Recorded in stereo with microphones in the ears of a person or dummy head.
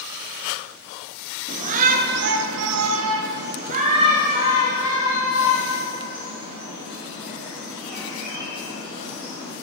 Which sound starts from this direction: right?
A shout, at 1.5 s.